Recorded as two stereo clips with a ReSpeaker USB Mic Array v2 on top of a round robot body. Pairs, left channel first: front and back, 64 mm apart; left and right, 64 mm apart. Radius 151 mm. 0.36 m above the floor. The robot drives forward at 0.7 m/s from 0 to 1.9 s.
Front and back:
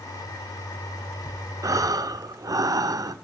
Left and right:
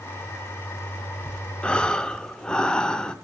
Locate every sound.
1.6 s breathing: 160° left, 0.9 m; by 3.1 s 165° left, 1.0 m